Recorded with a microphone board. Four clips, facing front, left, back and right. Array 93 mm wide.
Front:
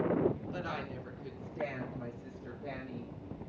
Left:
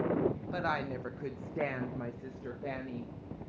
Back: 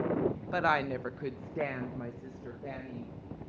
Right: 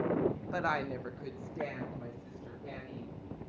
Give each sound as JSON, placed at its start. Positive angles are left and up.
{"t": 0.5, "sound": "a woman speaking", "azimuth_deg": -165, "distance_m": 1.0}